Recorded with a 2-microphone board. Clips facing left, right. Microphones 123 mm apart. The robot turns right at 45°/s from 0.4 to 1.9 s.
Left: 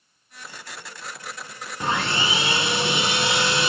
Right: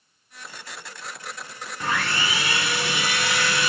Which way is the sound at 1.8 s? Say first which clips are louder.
Left 2 dB; 20° left (ahead or behind).